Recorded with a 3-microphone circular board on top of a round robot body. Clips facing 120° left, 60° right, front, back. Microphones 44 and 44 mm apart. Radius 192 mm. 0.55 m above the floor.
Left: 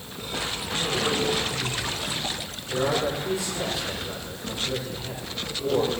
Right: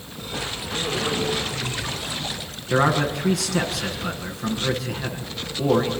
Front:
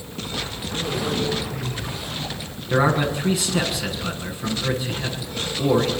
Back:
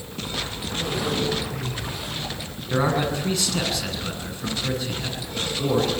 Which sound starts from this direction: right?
A man speaking, at 2.7 s.